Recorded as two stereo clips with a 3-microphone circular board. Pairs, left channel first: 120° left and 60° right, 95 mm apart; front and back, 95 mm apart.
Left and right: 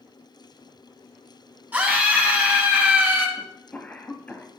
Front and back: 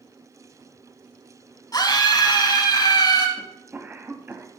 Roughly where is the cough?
Behind.